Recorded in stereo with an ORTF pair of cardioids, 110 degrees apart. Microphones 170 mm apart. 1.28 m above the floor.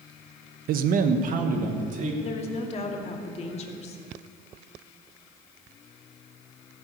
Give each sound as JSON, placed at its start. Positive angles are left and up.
{"t": 0.7, "sound": "a man speaking", "azimuth_deg": -65, "distance_m": 1.0}
{"t": 2.2, "sound": "a woman speaking", "azimuth_deg": 40, "distance_m": 2.5}